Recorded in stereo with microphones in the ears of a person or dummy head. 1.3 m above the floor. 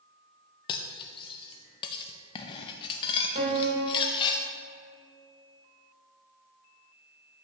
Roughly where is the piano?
Right.